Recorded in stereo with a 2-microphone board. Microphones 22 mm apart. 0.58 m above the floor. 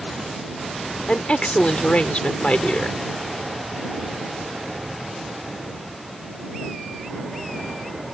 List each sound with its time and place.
1.1 s a woman speaking: 55° left (ahead or behind)